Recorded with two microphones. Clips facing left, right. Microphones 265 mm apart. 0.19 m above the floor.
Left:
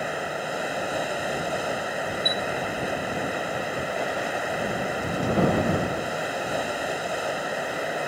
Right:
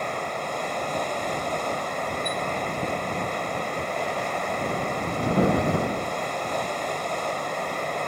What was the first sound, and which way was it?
Running water, 10° left (ahead or behind).